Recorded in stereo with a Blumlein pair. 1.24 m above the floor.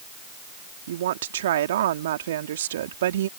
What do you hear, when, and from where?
0.9 s a woman speaking: 60° right